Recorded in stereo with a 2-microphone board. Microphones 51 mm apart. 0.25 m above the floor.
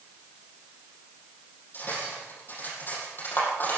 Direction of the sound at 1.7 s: 40° left (ahead or behind).